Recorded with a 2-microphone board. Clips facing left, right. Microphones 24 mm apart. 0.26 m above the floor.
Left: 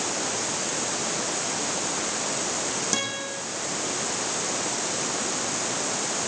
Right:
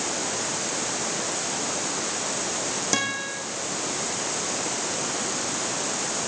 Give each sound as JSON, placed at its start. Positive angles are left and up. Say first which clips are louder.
{"t": 2.9, "sound": "a guitar", "louder": "right 2 dB", "side_deg": -10, "distance_m": 7.0}